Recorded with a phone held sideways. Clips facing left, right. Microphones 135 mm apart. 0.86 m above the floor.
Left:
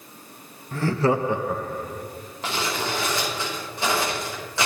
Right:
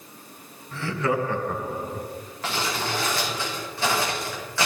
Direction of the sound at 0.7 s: 50° left (ahead or behind).